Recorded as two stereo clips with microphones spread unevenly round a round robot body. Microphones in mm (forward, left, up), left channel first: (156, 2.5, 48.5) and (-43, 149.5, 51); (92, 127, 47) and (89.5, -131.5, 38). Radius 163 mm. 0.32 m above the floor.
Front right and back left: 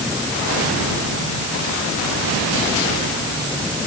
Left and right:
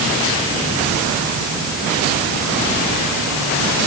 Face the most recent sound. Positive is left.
No sound to turn to.